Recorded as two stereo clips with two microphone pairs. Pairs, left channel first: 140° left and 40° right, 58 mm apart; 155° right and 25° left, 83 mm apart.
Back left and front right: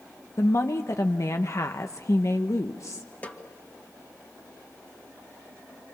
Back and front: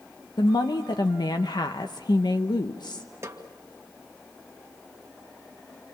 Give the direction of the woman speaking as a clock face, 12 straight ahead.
6 o'clock.